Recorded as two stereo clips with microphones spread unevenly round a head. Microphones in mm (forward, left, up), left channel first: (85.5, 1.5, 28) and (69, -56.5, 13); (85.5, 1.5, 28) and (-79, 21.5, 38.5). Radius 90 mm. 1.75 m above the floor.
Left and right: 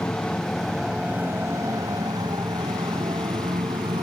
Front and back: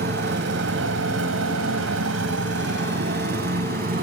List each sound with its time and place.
0.0 s a motorcycle: 145° left; by 4.0 s 145° right